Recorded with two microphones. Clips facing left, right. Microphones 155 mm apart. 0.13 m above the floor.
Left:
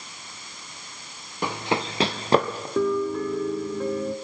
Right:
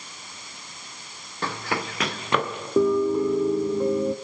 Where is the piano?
20° right (ahead or behind), 0.5 m.